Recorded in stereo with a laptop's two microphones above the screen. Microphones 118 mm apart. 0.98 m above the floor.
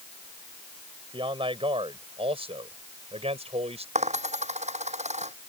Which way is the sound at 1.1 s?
50° right (ahead or behind).